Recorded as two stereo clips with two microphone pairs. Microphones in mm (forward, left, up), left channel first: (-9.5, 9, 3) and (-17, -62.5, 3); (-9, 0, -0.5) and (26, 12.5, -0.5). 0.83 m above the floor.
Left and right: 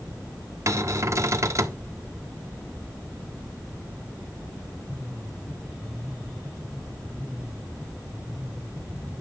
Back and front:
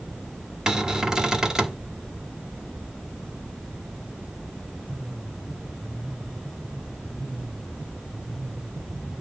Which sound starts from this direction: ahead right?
A cupboard door, at 0.7 s.